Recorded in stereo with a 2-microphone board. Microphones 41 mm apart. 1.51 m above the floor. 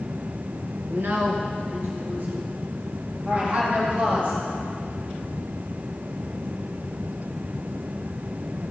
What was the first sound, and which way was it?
A woman speaking, 70° right (ahead or behind).